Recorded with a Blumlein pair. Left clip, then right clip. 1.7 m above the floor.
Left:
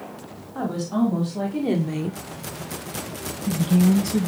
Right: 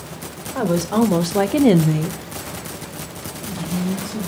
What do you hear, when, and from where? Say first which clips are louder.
0.6 s a woman speaking: right 6 dB; 65° right, 1.7 m; by 4.3 s 70° left, 2.5 m